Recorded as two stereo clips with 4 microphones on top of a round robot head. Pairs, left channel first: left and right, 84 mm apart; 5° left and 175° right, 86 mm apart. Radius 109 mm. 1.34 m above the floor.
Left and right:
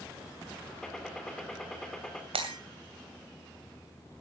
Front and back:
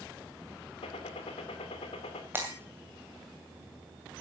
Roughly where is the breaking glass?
Right.